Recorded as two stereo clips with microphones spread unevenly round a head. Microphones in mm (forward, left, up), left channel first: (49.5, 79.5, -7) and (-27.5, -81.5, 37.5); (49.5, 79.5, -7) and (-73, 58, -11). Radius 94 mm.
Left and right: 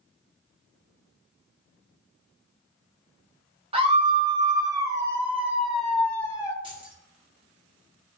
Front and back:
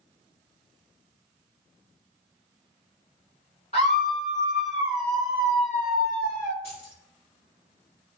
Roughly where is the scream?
Ahead right.